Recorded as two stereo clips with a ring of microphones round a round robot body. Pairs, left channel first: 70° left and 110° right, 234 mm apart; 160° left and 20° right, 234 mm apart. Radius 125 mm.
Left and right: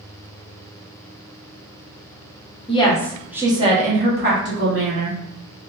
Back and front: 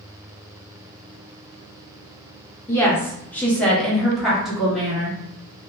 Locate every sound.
2.7 s a woman speaking: 95° left, 0.7 m; by 5.2 s 110° right, 1.2 m